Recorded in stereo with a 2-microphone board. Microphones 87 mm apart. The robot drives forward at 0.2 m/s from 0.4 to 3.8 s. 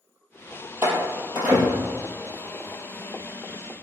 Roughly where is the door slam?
Right.